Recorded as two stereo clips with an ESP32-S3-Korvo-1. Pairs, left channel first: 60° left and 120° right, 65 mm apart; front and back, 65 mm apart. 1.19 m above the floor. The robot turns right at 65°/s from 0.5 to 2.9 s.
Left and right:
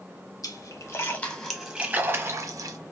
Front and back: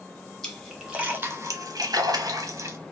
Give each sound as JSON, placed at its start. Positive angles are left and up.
{"t": 0.4, "sound": "a splash", "azimuth_deg": 80, "distance_m": 0.7}